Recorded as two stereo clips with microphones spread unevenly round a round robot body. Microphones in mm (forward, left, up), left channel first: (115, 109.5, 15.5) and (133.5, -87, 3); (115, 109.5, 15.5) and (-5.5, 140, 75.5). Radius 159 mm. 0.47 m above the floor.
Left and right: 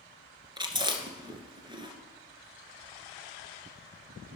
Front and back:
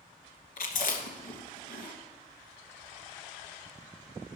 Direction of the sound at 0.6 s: 15° right.